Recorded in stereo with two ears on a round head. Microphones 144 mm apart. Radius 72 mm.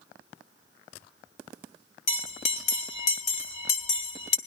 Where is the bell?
45° left (ahead or behind), 1.9 m.